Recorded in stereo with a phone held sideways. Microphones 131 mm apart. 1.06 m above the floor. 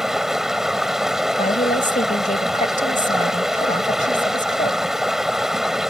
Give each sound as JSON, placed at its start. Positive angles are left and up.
{"t": 0.0, "sound": "running water", "side_deg": -5}
{"t": 1.4, "sound": "a woman speaking", "side_deg": 75}